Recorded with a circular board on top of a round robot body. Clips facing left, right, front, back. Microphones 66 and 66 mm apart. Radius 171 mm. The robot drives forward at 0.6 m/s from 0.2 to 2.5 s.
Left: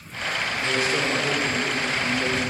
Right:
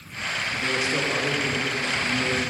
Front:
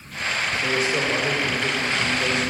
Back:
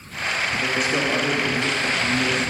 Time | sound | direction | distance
0.5 | a man speaking | 155° right | 1.6 m